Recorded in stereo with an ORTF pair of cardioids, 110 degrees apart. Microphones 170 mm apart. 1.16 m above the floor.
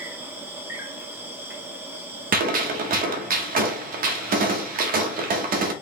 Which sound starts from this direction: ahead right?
A gunshot, at 2.3 s.